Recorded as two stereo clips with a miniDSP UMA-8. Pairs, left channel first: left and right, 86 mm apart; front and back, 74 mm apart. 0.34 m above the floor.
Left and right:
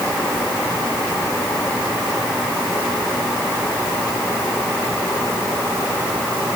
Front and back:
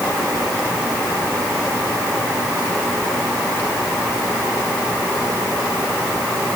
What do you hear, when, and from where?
Only background noise.